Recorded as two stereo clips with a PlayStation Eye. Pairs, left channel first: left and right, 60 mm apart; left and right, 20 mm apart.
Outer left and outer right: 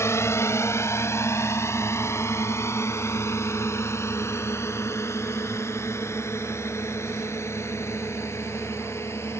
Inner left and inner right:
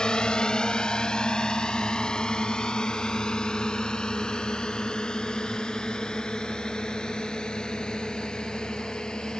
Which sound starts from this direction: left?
A drone, at 0.0 s.